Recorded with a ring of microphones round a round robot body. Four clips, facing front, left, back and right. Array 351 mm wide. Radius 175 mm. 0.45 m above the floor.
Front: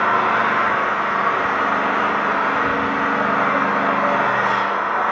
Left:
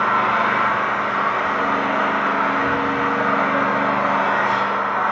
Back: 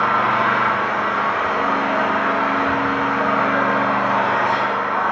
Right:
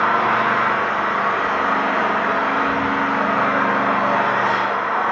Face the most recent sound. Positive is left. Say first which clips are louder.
# right 1 dB, even
turn(degrees=15)